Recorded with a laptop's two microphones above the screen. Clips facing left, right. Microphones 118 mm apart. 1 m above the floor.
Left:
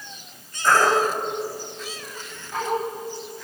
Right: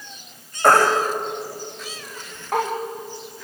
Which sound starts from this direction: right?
A baby crying, at 0.6 s.